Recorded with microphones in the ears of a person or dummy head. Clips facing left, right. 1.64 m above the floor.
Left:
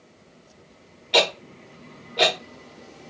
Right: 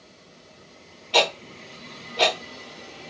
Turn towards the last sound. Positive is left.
turn(degrees=20)  # may be behind; listen again after turning